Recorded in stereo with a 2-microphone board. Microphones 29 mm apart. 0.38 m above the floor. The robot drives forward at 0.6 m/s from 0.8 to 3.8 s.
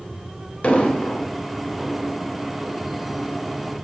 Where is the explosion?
45° left (ahead or behind), 0.9 m; by 1.2 s 50° left (ahead or behind), 0.8 m.